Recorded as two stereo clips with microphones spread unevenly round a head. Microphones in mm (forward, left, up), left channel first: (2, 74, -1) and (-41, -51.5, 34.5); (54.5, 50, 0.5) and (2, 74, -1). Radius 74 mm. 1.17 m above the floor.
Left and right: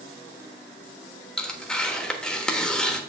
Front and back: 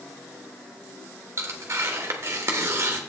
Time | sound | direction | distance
1.4 | tearing paper | 170° left | 1.0 m